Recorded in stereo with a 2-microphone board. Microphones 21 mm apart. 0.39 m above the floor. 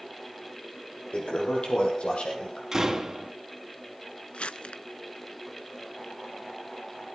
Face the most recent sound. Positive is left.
turn(degrees=70)  # may be behind; listen again after turning